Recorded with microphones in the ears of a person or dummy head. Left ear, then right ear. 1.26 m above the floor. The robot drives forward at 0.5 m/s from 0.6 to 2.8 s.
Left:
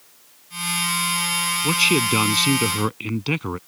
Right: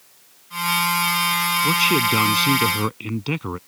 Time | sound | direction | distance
1.6 | a man speaking | 10° left (ahead or behind) | ?